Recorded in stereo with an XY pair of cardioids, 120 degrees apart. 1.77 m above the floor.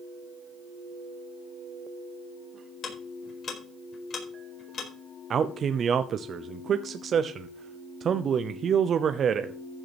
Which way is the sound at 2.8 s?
40° left.